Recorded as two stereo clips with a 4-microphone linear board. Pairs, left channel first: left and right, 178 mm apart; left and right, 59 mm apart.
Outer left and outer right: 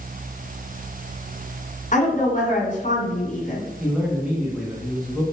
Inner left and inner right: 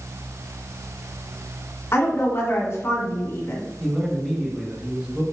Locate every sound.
1.9 s a woman speaking: 45° left (ahead or behind), 2 m
3.8 s a man speaking: centre (ahead or behind), 1.5 m